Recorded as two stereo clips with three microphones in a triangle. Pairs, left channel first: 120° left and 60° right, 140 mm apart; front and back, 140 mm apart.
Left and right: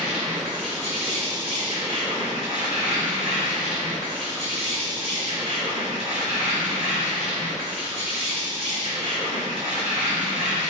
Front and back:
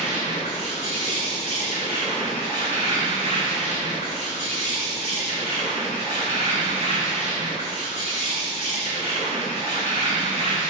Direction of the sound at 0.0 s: 25° right.